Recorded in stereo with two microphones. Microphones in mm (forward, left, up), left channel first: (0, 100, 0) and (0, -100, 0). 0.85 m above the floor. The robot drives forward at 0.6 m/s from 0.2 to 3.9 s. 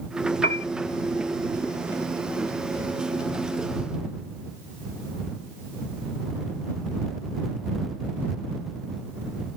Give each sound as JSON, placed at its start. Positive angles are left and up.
{"t": 0.4, "sound": "a piano", "side_deg": 50}